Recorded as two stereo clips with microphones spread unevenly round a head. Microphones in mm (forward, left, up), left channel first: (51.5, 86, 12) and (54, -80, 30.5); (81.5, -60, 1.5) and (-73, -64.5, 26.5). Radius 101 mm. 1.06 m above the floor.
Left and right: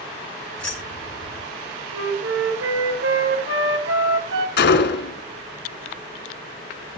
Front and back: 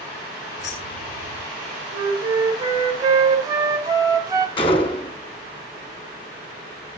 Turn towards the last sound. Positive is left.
turn(degrees=70)